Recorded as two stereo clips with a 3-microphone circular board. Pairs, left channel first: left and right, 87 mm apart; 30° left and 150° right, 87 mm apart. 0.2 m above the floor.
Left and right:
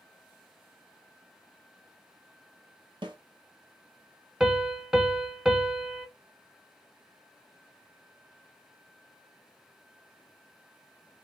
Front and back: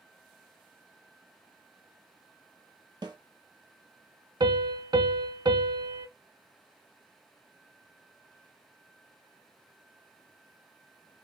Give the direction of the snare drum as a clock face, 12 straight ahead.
4 o'clock.